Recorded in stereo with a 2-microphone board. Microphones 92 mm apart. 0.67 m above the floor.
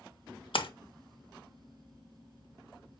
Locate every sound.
0.5 s a splash: 65° left (ahead or behind), 0.5 m